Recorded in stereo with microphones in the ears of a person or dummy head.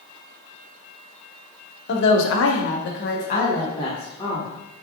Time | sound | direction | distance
1.9 | a woman speaking | 60° left (ahead or behind) | 0.6 m